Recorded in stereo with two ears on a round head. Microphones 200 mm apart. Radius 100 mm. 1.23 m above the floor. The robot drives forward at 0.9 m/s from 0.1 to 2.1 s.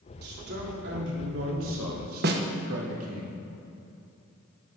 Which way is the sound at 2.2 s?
50° right (ahead or behind).